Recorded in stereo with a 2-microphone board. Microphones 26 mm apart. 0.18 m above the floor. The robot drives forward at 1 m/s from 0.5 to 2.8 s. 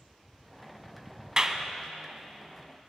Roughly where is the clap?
Right.